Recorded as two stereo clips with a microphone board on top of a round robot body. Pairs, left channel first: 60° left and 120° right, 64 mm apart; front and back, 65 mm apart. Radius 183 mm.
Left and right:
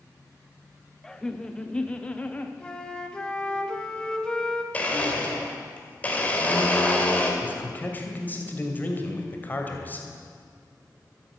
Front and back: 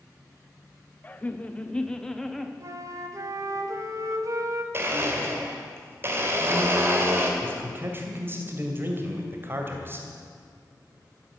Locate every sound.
1.0 s laughter: 10° right, 1.5 m; by 2.5 s 85° left, 1.4 m
2.6 s a flute: 140° left, 1.1 m
4.7 s a blender: 125° left, 2.5 m
7.4 s a man speaking: 125° left, 2.5 m